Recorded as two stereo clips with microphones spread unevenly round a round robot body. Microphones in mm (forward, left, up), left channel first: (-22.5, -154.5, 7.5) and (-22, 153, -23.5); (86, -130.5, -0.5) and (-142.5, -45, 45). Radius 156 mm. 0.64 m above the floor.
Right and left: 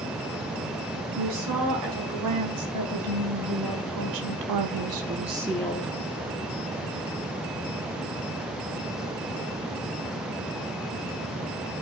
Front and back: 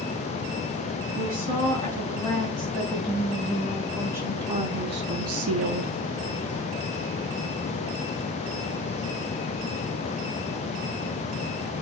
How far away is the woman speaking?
About 5.5 m.